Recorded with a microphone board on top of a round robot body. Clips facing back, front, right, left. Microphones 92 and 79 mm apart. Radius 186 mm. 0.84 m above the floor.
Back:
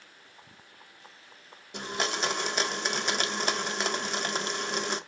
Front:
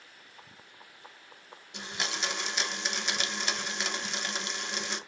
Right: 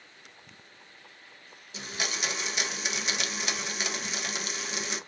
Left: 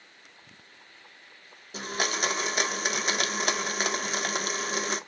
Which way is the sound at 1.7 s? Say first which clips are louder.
Back 5 dB, left 5 dB; 135° left.